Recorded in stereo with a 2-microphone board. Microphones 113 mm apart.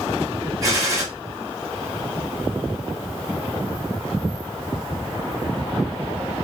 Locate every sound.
0.6 s a gunshot: 30° right (ahead or behind), 2.5 m